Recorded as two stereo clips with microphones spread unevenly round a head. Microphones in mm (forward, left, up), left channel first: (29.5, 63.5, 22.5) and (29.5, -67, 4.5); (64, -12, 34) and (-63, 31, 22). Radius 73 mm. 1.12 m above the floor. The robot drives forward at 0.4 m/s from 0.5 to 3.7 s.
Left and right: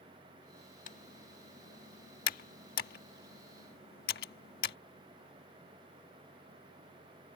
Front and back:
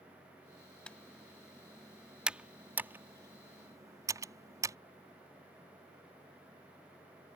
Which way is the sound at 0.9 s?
65° left.